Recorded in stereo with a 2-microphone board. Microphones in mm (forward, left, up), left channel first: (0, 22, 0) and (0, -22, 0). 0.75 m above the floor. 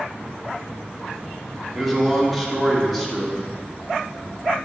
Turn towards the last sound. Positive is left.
turn(degrees=0)  # may be behind; listen again after turning